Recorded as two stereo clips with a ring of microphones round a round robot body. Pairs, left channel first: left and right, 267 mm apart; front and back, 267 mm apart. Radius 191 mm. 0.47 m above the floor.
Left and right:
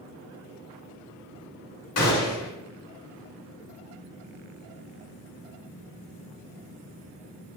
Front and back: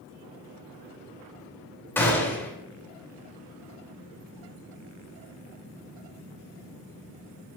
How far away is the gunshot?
About 2.5 m.